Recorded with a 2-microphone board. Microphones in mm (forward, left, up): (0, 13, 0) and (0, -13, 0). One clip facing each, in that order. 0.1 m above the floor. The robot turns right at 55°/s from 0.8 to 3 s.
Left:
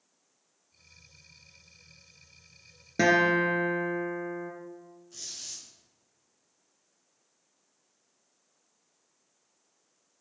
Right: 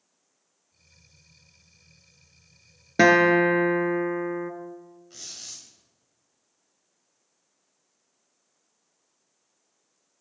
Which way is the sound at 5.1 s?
60° right (ahead or behind).